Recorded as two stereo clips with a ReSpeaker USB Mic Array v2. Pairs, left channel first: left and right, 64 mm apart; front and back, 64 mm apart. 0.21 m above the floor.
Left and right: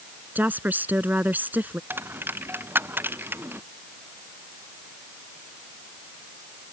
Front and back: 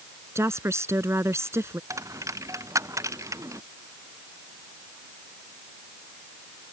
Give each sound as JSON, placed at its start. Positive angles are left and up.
{"t": 0.3, "sound": "a woman speaking", "azimuth_deg": -145}
{"t": 1.9, "sound": "a dropped coin", "azimuth_deg": -145}